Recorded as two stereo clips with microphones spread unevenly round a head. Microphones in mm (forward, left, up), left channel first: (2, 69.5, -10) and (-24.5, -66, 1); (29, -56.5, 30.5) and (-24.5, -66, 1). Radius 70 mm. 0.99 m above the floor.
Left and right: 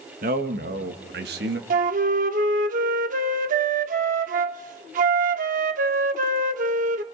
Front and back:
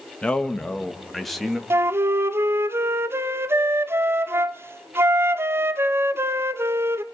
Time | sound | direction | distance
0.2 | a man speaking | 75° right | 1.3 m
1.7 | a flute | 110° right | 0.8 m